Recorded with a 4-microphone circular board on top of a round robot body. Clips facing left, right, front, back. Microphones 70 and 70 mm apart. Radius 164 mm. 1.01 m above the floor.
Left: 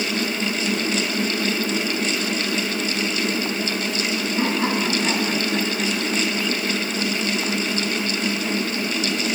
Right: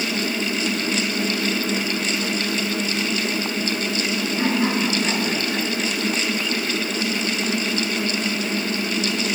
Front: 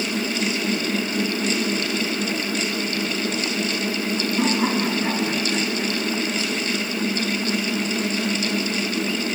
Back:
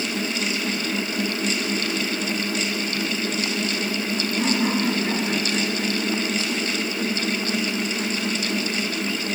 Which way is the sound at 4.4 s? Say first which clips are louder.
Right 1 dB, front 1 dB; 25° left.